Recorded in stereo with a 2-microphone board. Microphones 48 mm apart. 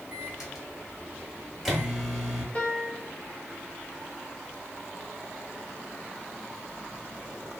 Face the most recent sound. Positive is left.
turn(degrees=30)  # may be behind; listen again after turning